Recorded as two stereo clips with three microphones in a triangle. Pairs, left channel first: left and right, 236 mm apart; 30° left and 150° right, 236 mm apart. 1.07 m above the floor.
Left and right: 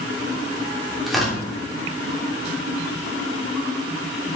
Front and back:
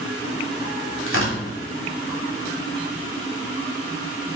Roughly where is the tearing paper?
Ahead.